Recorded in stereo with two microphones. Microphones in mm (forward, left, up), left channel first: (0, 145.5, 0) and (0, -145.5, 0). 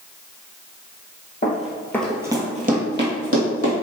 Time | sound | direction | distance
1.4 | running footsteps | 30° left (ahead or behind) | 0.8 m